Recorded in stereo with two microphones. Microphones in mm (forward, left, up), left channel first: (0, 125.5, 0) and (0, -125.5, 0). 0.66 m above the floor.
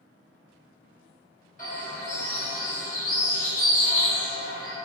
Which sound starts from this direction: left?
A bird, at 1.6 s.